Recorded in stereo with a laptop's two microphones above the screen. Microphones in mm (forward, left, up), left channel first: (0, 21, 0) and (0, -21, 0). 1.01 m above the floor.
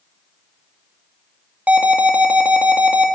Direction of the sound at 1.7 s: 35° right (ahead or behind).